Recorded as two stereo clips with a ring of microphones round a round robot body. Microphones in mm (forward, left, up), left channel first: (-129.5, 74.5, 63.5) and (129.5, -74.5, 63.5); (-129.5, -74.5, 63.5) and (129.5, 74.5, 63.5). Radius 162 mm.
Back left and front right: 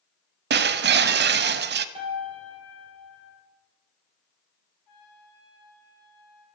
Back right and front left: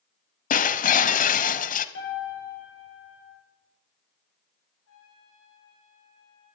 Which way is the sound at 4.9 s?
165° left.